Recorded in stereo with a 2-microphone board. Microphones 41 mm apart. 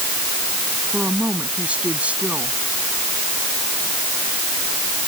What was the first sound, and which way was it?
A woman speaking, 30° right (ahead or behind).